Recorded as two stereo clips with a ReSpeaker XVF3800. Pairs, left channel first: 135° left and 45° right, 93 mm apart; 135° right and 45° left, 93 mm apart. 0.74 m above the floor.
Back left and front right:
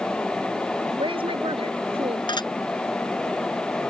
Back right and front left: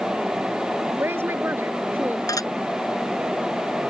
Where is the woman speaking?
20° right; by 2.2 s 25° right.